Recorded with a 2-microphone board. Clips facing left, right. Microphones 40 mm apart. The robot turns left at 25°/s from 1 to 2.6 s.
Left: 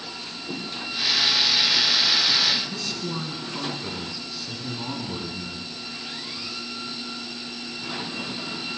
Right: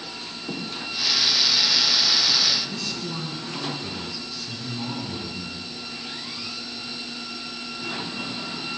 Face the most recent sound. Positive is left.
turn(degrees=10)  # may be behind; listen again after turning